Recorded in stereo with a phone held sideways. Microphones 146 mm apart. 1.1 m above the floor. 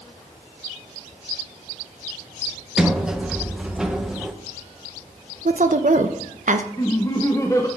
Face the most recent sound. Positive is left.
turn(degrees=20)  # may be behind; listen again after turning